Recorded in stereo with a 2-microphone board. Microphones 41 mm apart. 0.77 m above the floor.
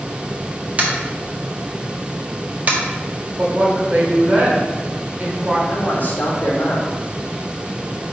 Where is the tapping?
35° right (ahead or behind), 1.4 m.